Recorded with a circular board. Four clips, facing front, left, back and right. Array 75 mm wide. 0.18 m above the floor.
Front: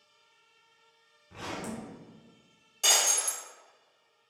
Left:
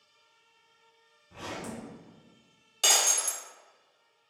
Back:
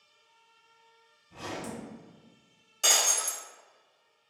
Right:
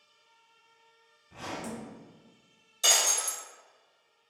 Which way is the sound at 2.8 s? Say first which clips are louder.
Left 1 dB, even; 90° left.